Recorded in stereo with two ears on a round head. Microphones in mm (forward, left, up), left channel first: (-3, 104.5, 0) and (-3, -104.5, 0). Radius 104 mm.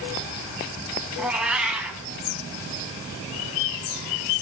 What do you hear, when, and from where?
1.2 s a cat meowing: 5° right (ahead or behind), 1.1 m